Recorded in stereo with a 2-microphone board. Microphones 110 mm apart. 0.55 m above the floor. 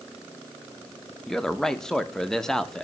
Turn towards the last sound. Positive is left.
turn(degrees=5)  # may be behind; listen again after turning